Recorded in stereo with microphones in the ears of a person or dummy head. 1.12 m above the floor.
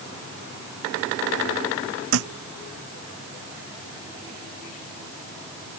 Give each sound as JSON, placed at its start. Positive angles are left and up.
{"t": 2.1, "sound": "a thud", "side_deg": -80}